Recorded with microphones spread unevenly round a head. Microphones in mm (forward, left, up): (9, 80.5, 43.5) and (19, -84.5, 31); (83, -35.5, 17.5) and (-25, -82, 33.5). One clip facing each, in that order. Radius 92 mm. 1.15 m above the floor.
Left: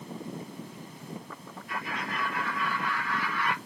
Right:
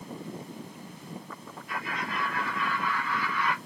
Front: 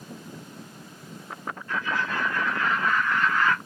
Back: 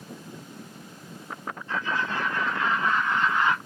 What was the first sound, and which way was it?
Laughter, 90° right.